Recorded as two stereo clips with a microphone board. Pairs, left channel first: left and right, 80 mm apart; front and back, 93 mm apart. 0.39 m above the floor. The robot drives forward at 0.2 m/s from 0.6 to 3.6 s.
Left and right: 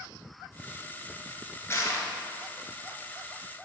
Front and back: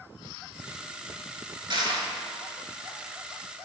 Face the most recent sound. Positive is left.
turn(degrees=155)